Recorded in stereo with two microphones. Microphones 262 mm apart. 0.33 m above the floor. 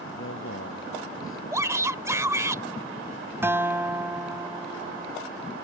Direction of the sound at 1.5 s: 10° right (ahead or behind).